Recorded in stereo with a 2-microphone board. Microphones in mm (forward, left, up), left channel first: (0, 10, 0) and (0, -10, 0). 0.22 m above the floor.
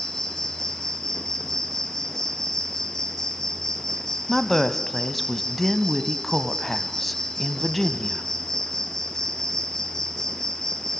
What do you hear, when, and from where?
0.0 s an insect: 25° left (ahead or behind), 1.3 m
4.3 s a woman speaking: 10° left (ahead or behind), 1.1 m